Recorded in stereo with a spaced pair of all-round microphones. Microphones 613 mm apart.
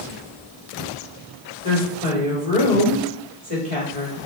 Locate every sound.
1.6 s a woman speaking: 60° right (ahead or behind), 2.0 m